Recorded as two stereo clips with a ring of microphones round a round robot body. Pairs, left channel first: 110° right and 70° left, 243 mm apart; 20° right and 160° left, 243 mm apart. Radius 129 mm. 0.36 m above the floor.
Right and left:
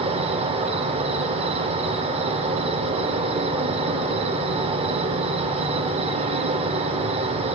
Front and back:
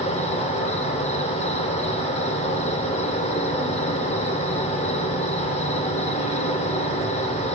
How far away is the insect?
About 0.7 m.